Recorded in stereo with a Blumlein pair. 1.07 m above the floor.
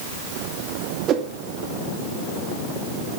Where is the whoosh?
30° right, 1.9 m.